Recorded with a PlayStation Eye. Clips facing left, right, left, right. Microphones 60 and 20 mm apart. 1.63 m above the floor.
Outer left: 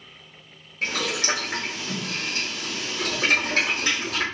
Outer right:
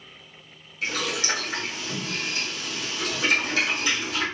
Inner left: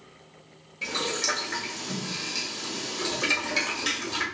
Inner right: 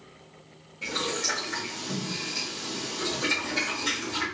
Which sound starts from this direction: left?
Boiling, at 0.8 s.